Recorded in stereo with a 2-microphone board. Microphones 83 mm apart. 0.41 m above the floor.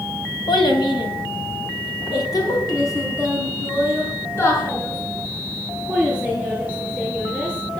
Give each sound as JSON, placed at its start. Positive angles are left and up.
{"t": 0.5, "sound": "a child speaking", "side_deg": 70, "distance_m": 2.5}